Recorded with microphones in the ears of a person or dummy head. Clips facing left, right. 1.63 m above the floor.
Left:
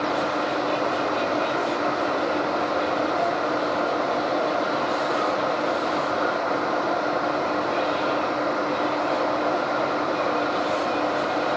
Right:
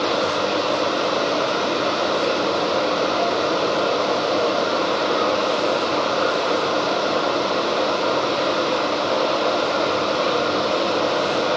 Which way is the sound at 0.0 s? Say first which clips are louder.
Right 3 dB; 45° right (ahead or behind).